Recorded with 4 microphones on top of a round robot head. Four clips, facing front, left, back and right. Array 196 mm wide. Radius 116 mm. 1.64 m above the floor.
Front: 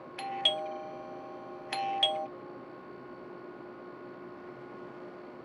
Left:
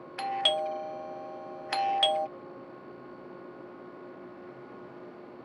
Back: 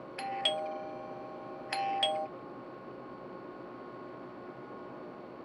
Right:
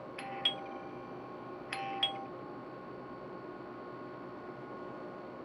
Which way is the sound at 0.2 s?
90° left.